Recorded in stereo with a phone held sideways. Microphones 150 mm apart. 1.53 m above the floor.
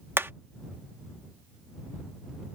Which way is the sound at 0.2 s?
15° right (ahead or behind).